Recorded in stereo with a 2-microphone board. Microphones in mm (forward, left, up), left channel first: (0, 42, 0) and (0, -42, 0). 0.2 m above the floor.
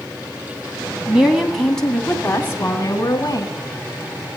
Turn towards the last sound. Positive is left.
turn(degrees=45)  # may be behind; listen again after turning